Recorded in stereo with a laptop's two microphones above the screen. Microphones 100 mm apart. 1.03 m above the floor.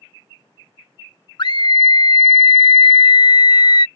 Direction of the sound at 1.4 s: 50° left (ahead or behind).